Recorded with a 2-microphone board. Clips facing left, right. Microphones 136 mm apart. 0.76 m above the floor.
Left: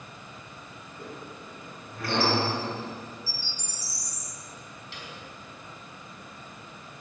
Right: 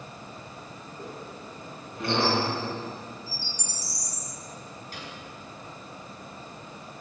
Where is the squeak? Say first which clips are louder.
Right 1 dB; 20° right (ahead or behind), 6 m.